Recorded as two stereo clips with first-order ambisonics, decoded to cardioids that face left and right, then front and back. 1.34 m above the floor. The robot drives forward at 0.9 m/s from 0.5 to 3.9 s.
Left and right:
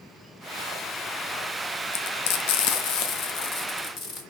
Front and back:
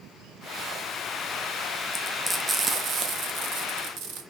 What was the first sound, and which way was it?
Frying, 75° left.